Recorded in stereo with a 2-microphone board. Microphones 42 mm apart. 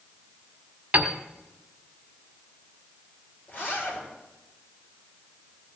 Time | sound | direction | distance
0.9 | a piano | 35° right (ahead or behind) | 1.5 m
3.5 | a zipper | 45° left (ahead or behind) | 5.5 m